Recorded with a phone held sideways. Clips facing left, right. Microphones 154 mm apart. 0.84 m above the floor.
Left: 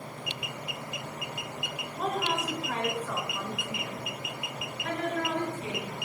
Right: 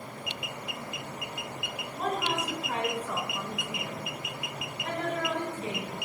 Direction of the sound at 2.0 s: Centre (ahead or behind).